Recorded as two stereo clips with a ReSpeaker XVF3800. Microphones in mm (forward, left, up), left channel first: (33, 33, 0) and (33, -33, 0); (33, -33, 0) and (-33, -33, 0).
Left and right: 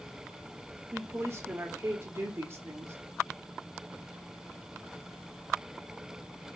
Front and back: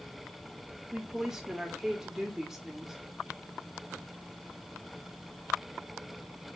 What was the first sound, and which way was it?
A woman speaking, 100° right.